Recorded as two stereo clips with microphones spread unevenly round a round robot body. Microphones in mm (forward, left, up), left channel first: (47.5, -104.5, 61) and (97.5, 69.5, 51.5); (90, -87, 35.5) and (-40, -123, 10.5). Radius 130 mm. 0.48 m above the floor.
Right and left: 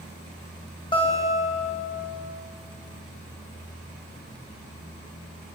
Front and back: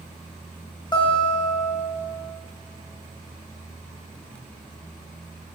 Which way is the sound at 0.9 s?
45° right.